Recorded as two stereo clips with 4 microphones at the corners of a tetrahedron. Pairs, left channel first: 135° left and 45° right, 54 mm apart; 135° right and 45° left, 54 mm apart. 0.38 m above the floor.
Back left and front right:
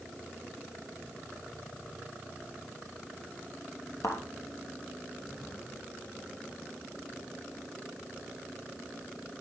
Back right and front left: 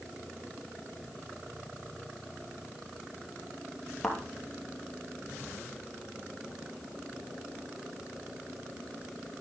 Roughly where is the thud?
Behind left.